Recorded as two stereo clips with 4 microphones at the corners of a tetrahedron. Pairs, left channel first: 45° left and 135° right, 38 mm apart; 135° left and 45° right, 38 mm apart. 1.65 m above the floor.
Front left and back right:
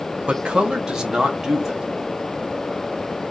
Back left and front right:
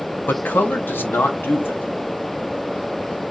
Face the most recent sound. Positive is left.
turn(degrees=145)